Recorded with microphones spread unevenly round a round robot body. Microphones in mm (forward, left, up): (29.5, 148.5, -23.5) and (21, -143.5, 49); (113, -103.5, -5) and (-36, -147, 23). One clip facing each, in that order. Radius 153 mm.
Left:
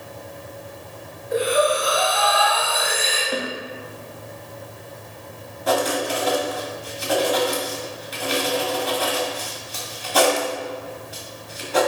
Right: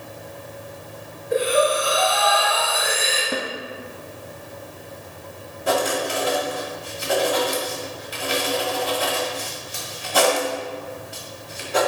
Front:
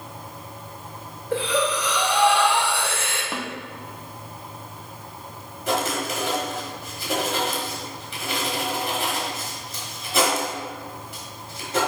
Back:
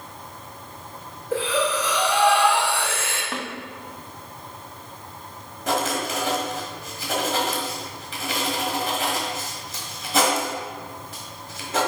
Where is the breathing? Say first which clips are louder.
Even, even; 80° right, 3 m.